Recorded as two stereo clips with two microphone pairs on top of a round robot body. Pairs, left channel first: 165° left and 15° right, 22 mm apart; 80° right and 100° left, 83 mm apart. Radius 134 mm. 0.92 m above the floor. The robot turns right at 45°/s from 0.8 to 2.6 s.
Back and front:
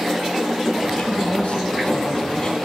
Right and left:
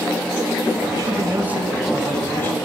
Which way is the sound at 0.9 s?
145° left.